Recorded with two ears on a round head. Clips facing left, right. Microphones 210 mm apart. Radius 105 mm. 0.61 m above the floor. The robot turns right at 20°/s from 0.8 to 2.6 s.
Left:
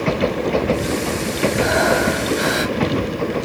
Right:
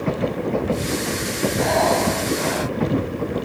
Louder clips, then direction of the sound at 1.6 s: Even; 10° left (ahead or behind).